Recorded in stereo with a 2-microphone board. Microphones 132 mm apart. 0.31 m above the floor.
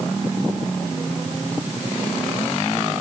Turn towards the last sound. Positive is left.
No sound to turn to.